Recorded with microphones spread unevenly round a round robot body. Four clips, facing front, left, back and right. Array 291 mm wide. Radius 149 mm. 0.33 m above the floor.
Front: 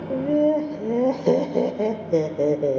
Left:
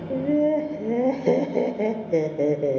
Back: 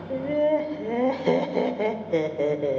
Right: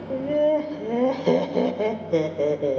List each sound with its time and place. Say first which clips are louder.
0.1 s laughter: even, front 3 dB; 20° left, 0.9 m